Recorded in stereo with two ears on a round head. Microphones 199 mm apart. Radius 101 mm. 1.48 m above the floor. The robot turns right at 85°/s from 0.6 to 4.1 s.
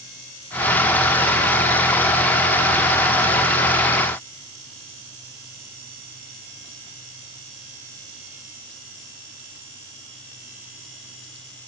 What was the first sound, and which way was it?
Only background noise.